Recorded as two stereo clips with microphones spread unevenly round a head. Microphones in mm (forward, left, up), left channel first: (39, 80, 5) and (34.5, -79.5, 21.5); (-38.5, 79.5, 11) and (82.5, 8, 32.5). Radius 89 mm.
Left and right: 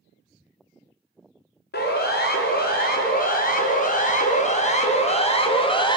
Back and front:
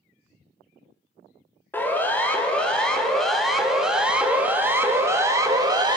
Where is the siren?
75° left, 4 m; by 6.0 s 30° left, 3 m.